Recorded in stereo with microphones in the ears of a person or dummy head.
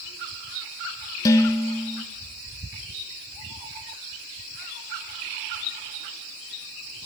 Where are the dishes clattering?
20° left (ahead or behind), 0.6 m.